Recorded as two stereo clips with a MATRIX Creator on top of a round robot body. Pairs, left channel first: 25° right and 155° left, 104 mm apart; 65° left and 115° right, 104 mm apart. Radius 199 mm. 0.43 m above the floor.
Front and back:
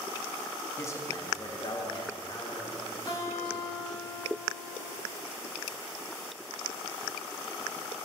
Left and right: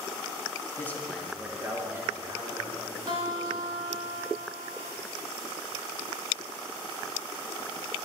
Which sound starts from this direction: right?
A guitar, at 3.1 s.